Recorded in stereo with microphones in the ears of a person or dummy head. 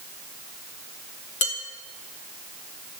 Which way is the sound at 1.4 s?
30° left (ahead or behind).